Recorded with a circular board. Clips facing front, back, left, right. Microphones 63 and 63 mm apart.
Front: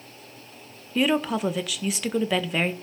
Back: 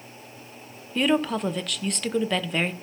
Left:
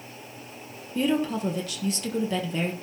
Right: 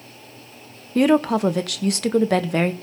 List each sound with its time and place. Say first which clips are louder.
0.9 s a woman speaking: even, right 8 dB; 85° right, 1.0 m